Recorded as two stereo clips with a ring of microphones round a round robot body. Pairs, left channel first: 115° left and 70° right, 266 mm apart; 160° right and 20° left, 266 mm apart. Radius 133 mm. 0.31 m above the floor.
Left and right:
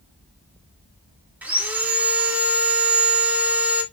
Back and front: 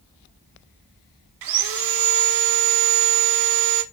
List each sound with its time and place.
1.4 s sawing: 15° left, 0.8 m